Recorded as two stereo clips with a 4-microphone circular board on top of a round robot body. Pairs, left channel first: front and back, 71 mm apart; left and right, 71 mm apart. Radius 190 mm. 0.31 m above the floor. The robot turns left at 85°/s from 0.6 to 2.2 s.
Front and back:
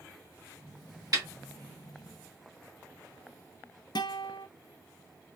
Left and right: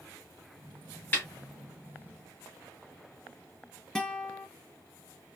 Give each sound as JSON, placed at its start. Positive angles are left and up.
{"t": 1.1, "sound": "a snare drum", "azimuth_deg": 150, "distance_m": 2.5}
{"t": 4.0, "sound": "a guitar", "azimuth_deg": 10, "distance_m": 0.5}